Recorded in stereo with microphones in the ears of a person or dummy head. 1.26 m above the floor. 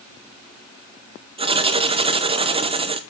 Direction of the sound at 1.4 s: 20° right (ahead or behind).